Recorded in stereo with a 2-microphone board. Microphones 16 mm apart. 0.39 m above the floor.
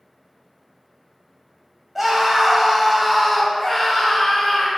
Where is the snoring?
I don't hear snoring.